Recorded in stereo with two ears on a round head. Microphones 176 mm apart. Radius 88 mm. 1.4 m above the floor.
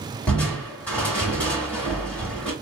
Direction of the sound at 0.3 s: 5° left (ahead or behind).